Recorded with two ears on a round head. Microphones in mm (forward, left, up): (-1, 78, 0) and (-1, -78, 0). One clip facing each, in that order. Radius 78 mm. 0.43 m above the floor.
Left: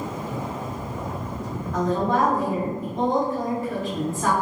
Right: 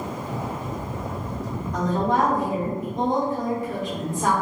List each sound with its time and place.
1.7 s a woman speaking: 15° right (ahead or behind), 1.4 m